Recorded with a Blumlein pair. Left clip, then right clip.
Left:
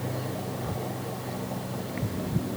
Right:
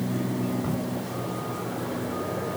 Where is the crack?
65° right, 4 m.